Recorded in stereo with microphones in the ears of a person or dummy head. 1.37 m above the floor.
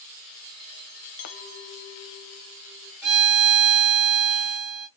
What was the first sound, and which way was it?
A clink, 50° left (ahead or behind).